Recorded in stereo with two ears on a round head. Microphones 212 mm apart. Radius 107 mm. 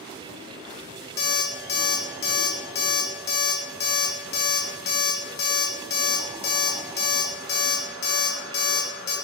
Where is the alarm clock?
40° left (ahead or behind), 0.5 m.